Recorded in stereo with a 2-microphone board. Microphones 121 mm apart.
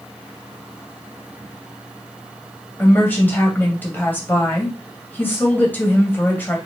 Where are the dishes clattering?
I don't hear dishes clattering.